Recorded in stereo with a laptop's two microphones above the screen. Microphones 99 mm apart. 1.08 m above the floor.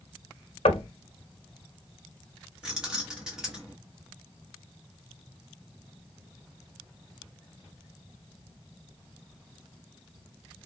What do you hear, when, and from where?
0.7 s knocking: 80° left, 0.6 m
2.6 s keys jangling: 5° right (ahead or behind), 0.8 m